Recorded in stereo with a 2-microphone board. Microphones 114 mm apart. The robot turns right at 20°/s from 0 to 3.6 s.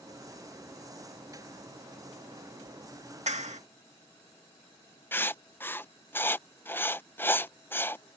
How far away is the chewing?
No chewing in this recording.